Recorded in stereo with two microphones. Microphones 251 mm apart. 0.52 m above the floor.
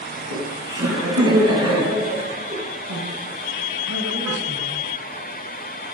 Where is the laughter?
80° right, 5 m; by 2.6 s 60° right (ahead or behind), 4 m.